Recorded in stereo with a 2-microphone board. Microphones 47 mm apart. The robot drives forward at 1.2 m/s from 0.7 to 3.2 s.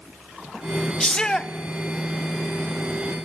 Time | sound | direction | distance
1.0 | a shout | 15° left (ahead or behind) | 0.6 m